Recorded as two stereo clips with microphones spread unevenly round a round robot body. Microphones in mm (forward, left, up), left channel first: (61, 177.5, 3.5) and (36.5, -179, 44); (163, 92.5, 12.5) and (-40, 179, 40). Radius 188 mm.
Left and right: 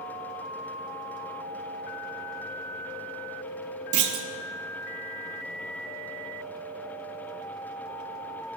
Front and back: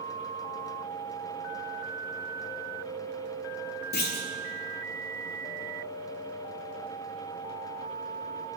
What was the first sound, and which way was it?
A clunk, 60° right.